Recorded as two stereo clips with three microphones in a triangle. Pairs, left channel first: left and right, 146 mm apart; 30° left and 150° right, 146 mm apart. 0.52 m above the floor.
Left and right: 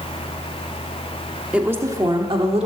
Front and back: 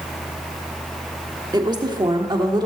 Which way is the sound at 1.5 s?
165° right.